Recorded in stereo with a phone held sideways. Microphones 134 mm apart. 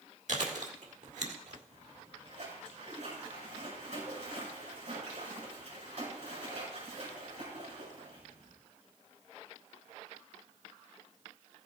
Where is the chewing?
65° right (ahead or behind), 1.7 m.